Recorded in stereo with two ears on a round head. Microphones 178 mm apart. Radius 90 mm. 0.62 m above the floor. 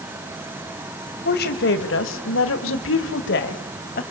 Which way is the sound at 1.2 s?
50° left (ahead or behind).